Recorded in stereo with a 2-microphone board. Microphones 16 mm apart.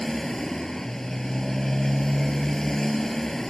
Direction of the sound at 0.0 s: 25° left (ahead or behind).